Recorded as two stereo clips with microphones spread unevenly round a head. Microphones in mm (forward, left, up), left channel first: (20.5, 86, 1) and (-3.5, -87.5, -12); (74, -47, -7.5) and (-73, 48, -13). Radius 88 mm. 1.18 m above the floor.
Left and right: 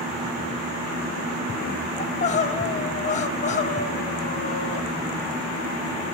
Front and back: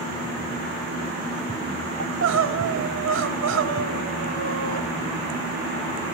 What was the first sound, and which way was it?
Crying, 135° left.